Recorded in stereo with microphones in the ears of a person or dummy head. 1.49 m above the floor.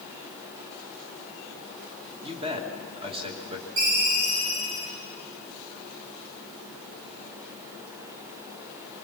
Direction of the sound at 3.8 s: 70° right (ahead or behind).